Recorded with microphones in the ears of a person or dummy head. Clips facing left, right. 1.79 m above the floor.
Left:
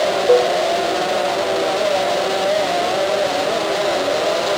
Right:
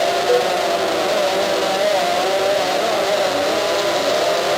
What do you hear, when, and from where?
0.3 s a cowbell: 25° left (ahead or behind), 6.5 m